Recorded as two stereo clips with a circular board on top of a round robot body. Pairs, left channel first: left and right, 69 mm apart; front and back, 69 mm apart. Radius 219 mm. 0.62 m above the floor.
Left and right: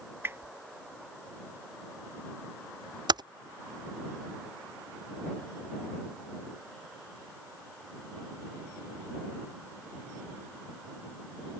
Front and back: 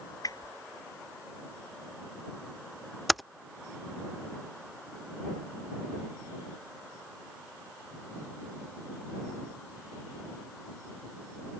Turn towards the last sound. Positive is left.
turn(degrees=-90)